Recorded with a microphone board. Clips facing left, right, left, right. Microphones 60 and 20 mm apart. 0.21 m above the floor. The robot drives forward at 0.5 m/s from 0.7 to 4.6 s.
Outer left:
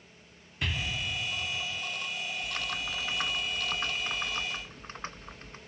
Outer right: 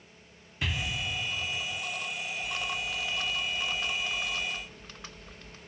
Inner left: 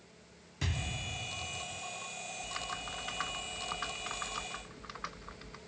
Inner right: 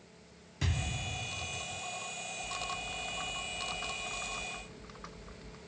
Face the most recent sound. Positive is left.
turn(degrees=35)  # may be behind; listen again after turning